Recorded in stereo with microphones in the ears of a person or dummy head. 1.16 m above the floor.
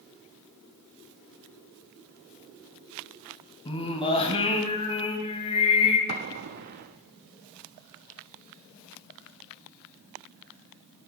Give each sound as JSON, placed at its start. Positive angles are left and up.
{"t": 3.6, "sound": "singing", "side_deg": 25, "distance_m": 2.5}
{"t": 6.1, "sound": "an explosion", "side_deg": -45, "distance_m": 1.0}